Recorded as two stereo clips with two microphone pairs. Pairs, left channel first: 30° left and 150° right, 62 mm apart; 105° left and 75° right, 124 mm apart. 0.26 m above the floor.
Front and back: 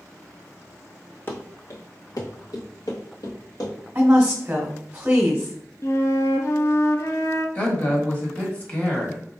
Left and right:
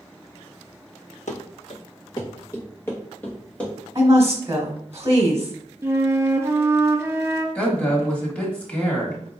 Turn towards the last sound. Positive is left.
turn(degrees=35)